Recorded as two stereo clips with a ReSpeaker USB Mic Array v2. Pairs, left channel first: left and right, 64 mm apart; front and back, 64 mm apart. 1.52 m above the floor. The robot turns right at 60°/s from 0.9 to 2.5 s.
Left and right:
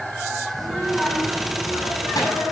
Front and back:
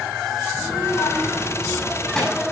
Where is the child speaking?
Straight ahead, 6 m; by 2.4 s 95° left, 6 m.